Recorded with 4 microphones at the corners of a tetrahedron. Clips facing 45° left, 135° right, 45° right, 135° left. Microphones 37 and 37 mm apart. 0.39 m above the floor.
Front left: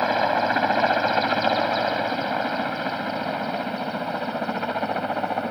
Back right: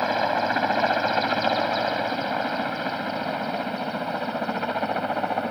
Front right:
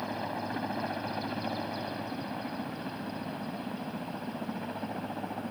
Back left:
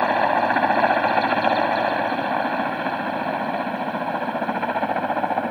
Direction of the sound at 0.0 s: 125° left.